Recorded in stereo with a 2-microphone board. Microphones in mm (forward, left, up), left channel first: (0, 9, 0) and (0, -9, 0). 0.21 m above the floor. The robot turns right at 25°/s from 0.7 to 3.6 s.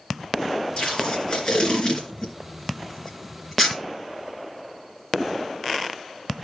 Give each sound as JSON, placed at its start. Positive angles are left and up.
{"t": 0.8, "sound": "tape being pulled", "side_deg": 60, "distance_m": 3.0}